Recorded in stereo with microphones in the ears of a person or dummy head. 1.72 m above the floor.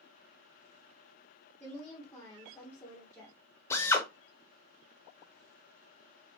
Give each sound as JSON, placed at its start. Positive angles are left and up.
{"t": 1.6, "sound": "a woman speaking", "side_deg": 15, "distance_m": 1.7}
{"t": 3.7, "sound": "a drill", "side_deg": 15, "distance_m": 0.9}